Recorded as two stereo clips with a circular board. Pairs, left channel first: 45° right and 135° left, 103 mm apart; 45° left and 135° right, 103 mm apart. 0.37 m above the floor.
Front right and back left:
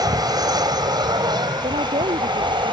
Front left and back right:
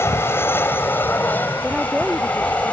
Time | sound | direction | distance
0.0 | an aircraft | 105° left | ?
1.6 | a woman speaking | 145° left | ?